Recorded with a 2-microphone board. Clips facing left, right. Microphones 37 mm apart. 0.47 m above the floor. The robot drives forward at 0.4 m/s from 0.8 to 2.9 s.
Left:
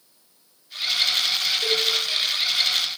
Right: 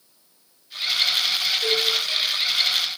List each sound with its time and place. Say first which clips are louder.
1.6 s a cowbell: right 1 dB; centre (ahead or behind), 0.6 m